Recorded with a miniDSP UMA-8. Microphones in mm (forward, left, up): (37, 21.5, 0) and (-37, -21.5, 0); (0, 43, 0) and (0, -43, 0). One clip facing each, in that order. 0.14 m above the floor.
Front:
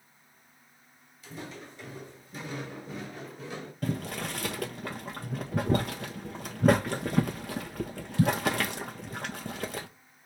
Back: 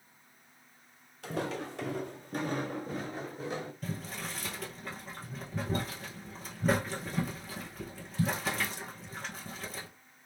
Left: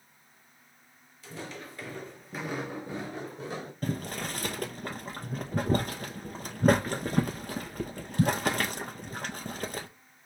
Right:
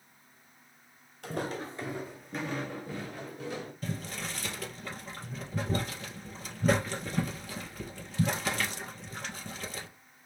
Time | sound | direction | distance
1.2 | footsteps | 125° right | 0.8 m
3.8 | boiling | 50° left | 0.5 m